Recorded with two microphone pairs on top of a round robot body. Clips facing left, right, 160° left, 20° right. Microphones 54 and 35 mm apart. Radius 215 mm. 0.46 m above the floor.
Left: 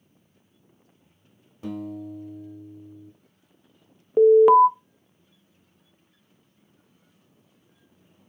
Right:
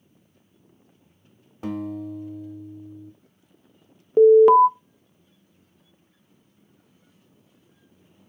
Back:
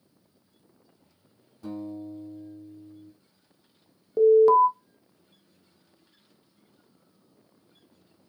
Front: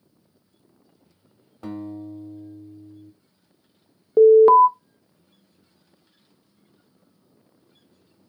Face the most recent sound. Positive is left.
turn(degrees=0)